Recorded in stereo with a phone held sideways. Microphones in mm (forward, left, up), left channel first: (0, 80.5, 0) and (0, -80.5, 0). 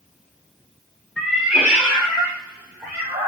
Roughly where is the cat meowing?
Centre.